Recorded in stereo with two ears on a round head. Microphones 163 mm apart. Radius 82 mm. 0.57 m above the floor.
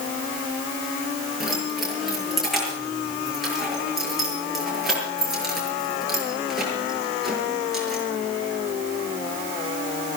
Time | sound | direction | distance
1.4 | keys jangling | centre (ahead or behind) | 7 m